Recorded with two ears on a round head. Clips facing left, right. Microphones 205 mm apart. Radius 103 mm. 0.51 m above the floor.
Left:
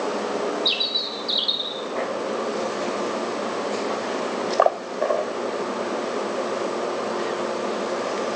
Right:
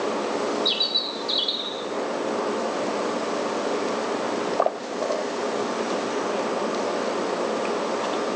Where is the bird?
15° left (ahead or behind), 0.7 m.